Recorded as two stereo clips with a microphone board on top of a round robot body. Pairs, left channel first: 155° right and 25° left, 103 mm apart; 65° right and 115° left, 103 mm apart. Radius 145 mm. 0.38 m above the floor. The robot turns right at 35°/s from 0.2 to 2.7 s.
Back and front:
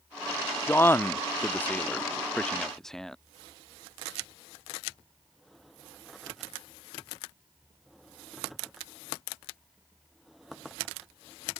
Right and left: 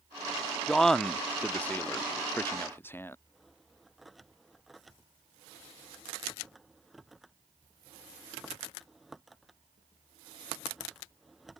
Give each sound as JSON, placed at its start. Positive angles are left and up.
{"t": 0.7, "sound": "a man speaking", "azimuth_deg": -150}